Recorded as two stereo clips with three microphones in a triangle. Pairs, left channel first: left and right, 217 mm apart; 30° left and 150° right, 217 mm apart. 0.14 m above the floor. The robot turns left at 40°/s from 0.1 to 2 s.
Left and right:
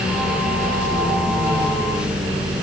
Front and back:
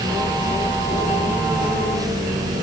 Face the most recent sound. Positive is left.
No sound to turn to.